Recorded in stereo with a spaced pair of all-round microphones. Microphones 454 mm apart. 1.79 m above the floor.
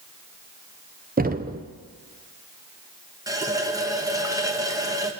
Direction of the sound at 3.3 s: 10° right (ahead or behind).